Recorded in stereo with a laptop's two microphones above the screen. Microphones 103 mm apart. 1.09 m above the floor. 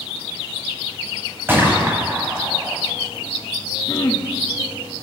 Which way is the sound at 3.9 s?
40° left (ahead or behind).